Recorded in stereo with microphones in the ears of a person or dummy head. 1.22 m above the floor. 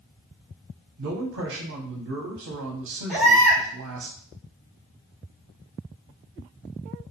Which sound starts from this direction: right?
A man speaking, at 1.0 s.